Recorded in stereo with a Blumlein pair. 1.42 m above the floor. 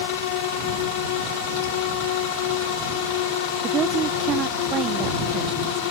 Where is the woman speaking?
25° right.